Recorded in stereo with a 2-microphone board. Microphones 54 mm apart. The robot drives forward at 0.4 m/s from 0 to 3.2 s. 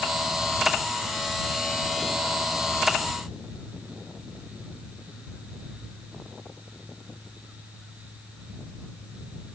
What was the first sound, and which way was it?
Only background noise.